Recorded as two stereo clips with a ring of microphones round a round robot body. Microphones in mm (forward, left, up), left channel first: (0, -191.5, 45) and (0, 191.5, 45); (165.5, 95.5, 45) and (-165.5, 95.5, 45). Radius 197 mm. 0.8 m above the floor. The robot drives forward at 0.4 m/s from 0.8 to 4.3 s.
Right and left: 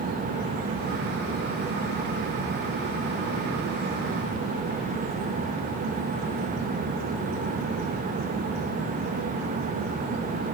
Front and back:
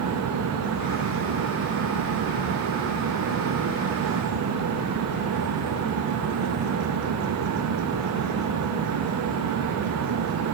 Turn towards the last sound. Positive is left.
No sound to turn to.